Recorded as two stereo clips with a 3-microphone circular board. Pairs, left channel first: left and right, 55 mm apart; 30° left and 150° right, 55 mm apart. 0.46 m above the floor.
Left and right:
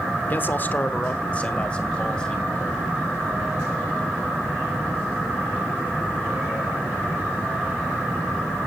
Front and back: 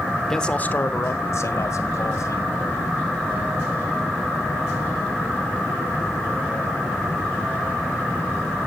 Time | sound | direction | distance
0.3 | a man speaking | 105° left | 1.0 m